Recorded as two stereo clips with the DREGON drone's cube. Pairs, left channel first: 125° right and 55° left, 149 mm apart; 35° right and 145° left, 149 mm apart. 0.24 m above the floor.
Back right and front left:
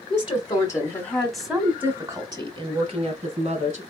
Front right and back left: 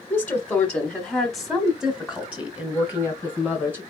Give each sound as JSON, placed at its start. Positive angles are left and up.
{"t": 0.1, "sound": "a woman speaking", "azimuth_deg": -105, "distance_m": 1.4}